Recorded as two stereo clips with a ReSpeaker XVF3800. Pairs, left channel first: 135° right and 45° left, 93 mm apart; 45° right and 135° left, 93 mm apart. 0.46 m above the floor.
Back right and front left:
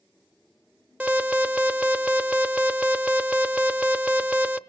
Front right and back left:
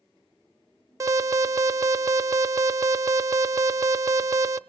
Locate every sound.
1.0 s an alarm: 115° left, 0.6 m